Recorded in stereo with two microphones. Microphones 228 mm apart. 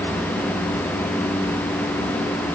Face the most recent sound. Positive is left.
No sound to turn to.